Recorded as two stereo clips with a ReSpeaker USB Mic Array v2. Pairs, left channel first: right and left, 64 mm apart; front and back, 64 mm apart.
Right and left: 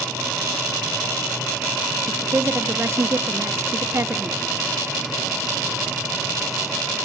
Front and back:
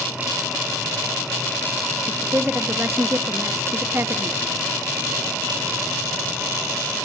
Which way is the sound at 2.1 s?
135° left.